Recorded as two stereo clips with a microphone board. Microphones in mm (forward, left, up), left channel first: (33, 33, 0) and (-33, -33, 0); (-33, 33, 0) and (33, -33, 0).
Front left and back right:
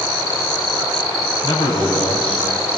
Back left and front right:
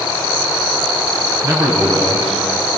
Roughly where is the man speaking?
Ahead.